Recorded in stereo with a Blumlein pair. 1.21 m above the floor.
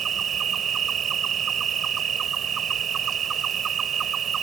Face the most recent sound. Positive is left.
turn(degrees=-25)